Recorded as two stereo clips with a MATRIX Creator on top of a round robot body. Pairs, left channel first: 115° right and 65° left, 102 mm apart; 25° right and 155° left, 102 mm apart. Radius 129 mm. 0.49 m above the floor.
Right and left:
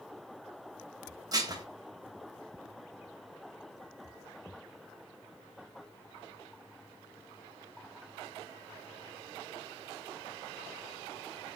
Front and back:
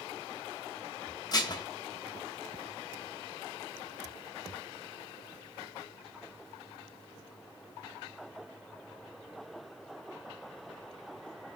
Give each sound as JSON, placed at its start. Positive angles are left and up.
{"t": 1.3, "sound": "dishes clattering", "azimuth_deg": 20, "distance_m": 0.7}